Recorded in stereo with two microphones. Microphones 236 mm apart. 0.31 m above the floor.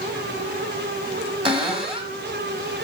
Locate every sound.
1.4 s a cupboard door: 20° right (ahead or behind), 1.6 m